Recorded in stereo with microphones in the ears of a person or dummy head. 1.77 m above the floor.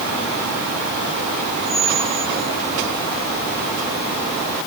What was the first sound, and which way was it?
A squeak, 80° right.